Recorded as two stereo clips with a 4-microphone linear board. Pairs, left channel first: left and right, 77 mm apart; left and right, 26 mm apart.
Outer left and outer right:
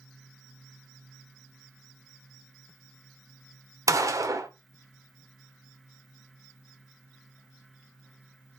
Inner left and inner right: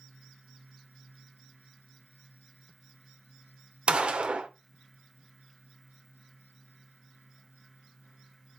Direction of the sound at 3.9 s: 45° right (ahead or behind).